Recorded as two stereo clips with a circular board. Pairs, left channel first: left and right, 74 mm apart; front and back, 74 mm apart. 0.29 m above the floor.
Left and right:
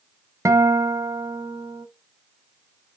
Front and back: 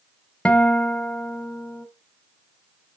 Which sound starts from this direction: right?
A guitar, at 0.5 s.